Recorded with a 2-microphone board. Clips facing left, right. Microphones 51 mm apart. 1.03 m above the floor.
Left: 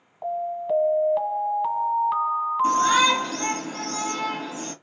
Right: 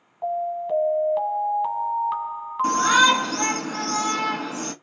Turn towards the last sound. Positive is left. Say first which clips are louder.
# right 3 dB
turn(degrees=-65)  # may be behind; listen again after turning